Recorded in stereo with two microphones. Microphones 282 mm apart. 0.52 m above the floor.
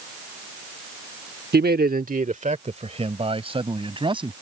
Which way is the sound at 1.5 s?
35° right (ahead or behind).